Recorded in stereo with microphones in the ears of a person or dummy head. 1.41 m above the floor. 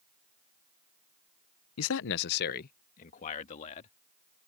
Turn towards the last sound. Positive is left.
turn(degrees=40)  # may be behind; listen again after turning